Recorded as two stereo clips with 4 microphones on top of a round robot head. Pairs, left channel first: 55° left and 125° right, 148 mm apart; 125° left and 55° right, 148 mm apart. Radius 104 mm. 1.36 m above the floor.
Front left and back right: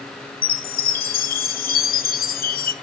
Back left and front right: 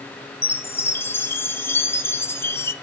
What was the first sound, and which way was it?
A chime, 50° left.